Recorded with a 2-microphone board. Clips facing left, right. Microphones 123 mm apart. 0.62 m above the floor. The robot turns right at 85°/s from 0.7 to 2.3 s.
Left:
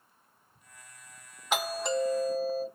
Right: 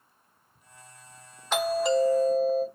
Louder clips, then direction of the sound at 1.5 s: Right 6 dB; 10° left (ahead or behind).